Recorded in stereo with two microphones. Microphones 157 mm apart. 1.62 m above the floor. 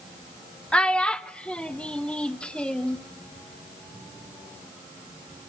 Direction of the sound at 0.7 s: 5° left (ahead or behind).